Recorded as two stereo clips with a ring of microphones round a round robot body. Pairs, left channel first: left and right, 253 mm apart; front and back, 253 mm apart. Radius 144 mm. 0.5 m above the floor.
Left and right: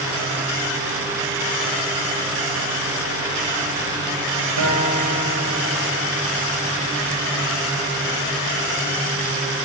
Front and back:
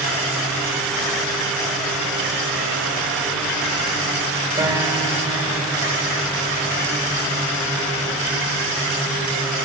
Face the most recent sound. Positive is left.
turn(degrees=-105)